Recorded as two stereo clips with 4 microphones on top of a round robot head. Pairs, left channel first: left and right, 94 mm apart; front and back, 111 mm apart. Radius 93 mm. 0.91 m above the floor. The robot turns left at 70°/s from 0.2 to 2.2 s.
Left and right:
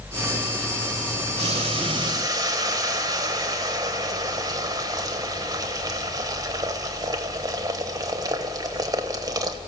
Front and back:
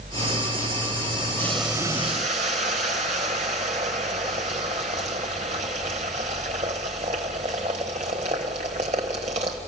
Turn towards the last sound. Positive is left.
turn(degrees=-135)